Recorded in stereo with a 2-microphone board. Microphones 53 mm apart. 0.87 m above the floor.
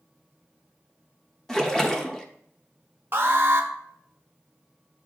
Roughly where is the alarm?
Right.